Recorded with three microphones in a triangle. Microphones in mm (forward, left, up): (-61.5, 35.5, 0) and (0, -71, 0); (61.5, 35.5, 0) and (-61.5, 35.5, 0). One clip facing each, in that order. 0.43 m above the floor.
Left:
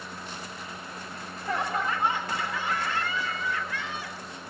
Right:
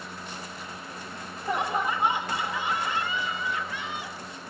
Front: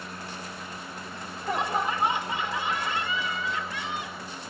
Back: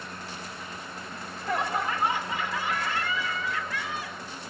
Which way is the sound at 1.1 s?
25° right.